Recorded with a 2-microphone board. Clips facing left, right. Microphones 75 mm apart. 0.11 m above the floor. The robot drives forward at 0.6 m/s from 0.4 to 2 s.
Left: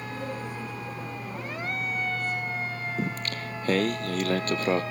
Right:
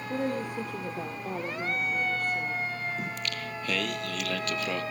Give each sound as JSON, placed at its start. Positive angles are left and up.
{"t": 0.1, "sound": "a woman speaking", "side_deg": -60, "distance_m": 3.0}
{"t": 3.0, "sound": "singing", "side_deg": 40, "distance_m": 1.1}